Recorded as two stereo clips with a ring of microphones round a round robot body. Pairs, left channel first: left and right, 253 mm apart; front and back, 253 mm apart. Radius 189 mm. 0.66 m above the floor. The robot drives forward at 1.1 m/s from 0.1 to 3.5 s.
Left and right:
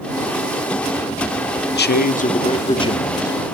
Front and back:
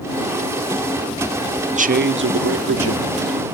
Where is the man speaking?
120° left, 0.9 m; by 3.5 s 165° left, 2.5 m.